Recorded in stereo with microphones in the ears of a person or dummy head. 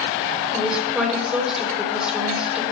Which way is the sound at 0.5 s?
Centre (ahead or behind).